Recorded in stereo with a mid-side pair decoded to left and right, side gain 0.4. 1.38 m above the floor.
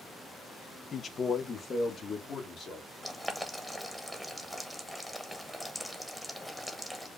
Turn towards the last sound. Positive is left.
turn(degrees=0)